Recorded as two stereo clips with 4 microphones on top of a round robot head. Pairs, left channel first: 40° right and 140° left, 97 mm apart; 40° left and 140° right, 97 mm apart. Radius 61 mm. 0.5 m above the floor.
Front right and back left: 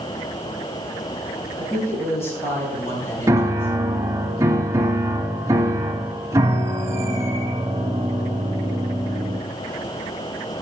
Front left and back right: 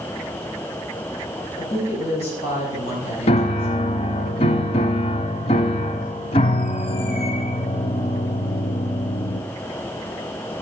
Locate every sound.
1.6 s a woman speaking: 25° left, 4 m
3.3 s a piano: 75° left, 0.5 m